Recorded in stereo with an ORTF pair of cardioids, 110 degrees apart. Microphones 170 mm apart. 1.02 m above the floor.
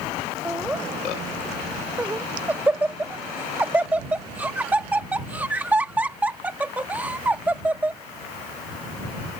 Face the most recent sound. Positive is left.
turn(degrees=-10)